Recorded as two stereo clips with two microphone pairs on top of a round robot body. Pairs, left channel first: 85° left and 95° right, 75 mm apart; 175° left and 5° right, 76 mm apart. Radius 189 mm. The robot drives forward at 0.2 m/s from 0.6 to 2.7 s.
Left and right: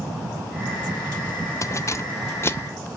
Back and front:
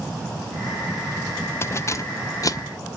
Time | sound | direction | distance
1.6 | keys jangling | 130° left | 0.6 m